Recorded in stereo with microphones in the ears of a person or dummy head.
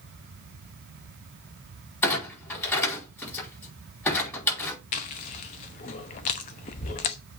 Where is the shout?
I don't hear a shout.